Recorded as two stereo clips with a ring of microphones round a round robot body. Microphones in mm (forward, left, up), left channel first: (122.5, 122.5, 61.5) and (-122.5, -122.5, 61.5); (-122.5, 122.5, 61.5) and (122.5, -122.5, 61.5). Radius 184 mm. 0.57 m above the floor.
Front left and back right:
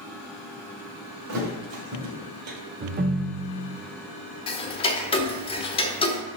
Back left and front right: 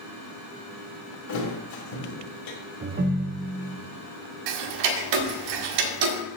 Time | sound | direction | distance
1.3 | a thud | 175° left | 1.6 m
2.8 | a ringtone | 90° right | 0.5 m
4.5 | ticking | 30° right | 0.7 m